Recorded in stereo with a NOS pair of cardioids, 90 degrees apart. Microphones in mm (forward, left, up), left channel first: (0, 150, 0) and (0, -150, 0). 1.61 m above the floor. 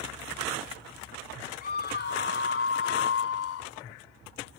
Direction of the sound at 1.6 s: 30° left.